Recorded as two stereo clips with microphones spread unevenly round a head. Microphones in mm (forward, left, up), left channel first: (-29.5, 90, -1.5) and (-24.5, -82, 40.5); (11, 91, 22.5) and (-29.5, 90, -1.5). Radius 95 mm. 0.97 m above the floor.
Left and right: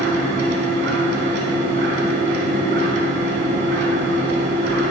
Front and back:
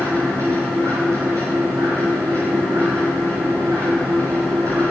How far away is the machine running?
About 2.5 m.